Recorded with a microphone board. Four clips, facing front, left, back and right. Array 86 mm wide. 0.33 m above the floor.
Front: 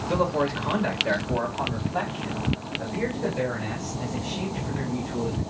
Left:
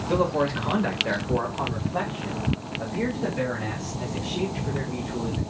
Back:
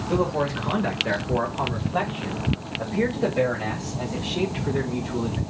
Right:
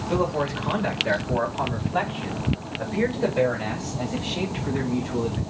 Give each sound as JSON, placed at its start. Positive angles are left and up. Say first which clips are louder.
{"t": 0.1, "sound": "a man speaking", "louder": "left 1 dB, even", "azimuth_deg": 60, "distance_m": 1.5}